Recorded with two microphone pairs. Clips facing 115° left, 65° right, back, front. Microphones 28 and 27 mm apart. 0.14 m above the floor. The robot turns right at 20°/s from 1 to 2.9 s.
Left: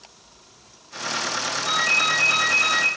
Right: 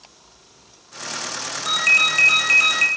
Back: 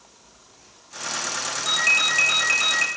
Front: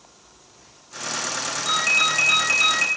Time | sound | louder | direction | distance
1.6 | a ringtone | right 4 dB, even | 115° right | 2 m